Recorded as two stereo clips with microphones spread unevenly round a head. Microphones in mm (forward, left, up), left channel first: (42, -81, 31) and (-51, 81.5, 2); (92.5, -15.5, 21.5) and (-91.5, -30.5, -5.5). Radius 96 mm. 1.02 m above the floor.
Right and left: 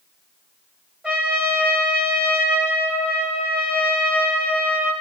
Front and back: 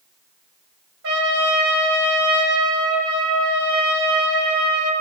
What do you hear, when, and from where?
1.0 s a trumpet: 155° right, 2 m